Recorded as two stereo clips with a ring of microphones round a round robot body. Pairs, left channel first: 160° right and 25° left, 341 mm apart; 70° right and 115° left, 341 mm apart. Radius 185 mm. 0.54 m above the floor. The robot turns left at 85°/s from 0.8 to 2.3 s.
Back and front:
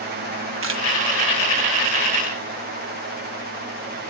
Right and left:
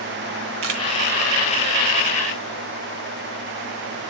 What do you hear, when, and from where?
0.6 s a camera shutter: 80° left, 1.3 m; by 0.8 s 75° left, 1.3 m